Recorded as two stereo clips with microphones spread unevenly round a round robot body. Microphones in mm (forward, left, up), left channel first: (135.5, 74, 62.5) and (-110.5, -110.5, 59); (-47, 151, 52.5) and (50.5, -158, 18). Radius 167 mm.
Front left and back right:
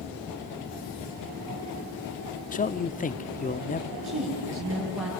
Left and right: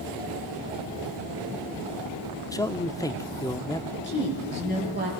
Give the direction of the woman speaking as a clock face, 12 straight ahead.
7 o'clock.